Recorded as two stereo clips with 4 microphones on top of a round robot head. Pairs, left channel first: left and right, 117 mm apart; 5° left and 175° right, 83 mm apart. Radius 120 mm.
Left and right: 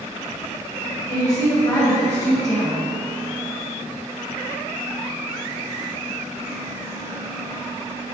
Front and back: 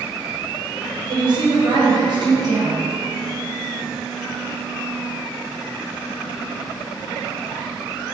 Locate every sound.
1.1 s a woman speaking: 155° left, 1.0 m